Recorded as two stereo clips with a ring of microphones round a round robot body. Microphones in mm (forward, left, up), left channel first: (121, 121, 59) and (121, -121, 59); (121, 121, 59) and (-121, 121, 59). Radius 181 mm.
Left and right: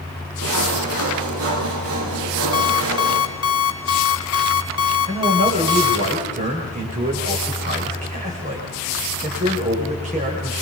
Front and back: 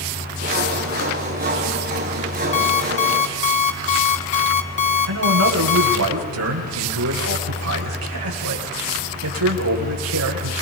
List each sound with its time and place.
0.4 s sawing: 120° right, 3.5 m
2.5 s an alarm clock: 65° left, 3 m
5.1 s a man speaking: 155° right, 4.5 m